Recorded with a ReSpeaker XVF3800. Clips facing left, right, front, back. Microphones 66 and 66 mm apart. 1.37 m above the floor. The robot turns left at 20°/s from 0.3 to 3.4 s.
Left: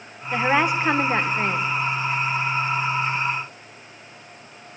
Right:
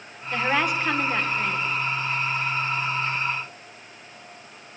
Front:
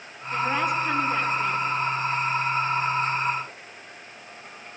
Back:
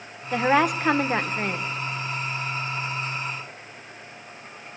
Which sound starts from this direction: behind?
A woman speaking, at 0.3 s.